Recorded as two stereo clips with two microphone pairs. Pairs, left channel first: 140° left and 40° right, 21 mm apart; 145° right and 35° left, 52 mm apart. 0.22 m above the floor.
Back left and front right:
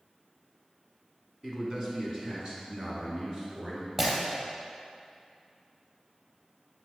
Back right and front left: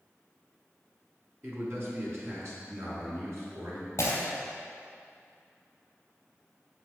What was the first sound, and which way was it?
A man speaking, 15° left.